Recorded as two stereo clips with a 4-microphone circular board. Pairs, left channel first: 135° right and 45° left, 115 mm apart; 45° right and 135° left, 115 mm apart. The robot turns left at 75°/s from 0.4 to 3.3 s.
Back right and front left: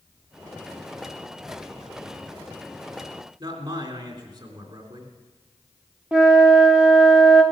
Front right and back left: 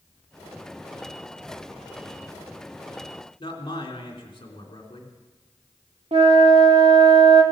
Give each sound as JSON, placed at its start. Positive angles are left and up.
{"t": 3.4, "sound": "a man speaking", "azimuth_deg": 0, "distance_m": 3.0}
{"t": 6.1, "sound": "a flute", "azimuth_deg": 125, "distance_m": 1.5}